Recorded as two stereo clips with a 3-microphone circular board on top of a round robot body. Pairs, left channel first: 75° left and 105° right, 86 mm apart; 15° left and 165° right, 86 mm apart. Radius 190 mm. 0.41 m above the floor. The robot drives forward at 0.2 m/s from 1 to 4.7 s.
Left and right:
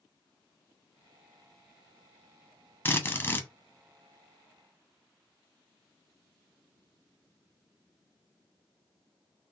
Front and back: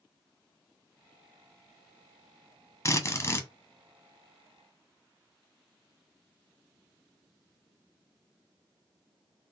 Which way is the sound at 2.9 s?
25° left.